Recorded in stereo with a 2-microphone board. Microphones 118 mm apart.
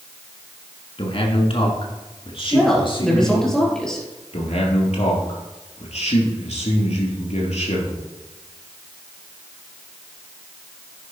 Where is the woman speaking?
5° left (ahead or behind), 3.5 m.